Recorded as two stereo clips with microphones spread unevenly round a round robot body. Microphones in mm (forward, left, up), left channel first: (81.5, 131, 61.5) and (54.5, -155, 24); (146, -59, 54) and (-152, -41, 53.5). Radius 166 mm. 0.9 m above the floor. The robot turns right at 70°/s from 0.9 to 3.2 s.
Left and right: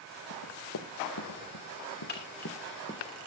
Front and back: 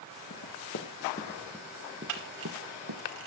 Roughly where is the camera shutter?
Behind left.